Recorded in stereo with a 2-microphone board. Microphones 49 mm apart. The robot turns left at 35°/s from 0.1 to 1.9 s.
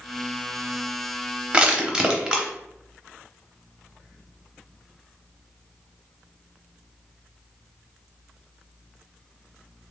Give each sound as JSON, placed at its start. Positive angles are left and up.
{"t": 1.5, "sound": "crushing", "side_deg": -25, "distance_m": 0.6}